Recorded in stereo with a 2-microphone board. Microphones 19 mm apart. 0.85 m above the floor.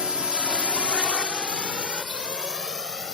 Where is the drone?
55° right (ahead or behind); by 3.1 s 30° right (ahead or behind).